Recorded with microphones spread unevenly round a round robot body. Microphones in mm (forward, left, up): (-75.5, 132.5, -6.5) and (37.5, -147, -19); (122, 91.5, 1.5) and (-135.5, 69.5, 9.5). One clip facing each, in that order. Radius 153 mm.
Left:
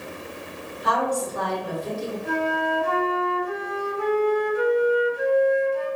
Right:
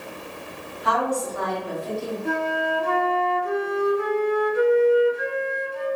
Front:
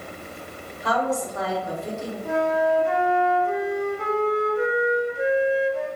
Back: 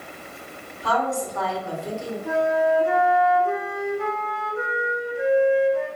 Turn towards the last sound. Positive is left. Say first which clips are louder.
# left 2 dB, back 1 dB
turn(degrees=-90)